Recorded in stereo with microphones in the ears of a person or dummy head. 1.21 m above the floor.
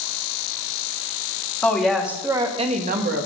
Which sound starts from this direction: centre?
A woman speaking, at 1.6 s.